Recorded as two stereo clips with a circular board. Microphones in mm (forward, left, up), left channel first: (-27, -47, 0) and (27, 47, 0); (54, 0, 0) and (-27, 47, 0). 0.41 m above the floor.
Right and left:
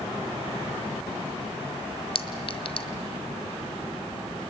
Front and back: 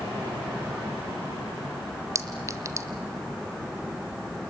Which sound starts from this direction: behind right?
A clink, at 2.1 s.